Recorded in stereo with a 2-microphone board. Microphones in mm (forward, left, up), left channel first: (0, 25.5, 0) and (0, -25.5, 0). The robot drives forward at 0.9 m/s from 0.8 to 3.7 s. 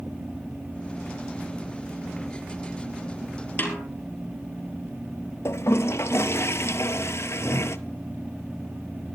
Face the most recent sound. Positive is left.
turn(degrees=65)  # may be behind; listen again after turning